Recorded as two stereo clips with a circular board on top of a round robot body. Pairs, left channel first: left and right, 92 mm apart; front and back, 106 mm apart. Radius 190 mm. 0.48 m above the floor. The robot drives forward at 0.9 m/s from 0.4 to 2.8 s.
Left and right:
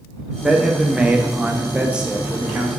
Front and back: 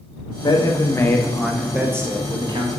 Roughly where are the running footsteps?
I don't hear running footsteps.